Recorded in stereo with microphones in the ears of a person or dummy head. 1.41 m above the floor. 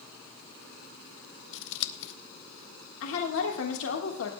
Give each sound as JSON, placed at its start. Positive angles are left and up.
{"t": 1.5, "sound": "scissors", "side_deg": 65, "distance_m": 1.0}
{"t": 3.0, "sound": "a woman speaking", "side_deg": 70, "distance_m": 1.4}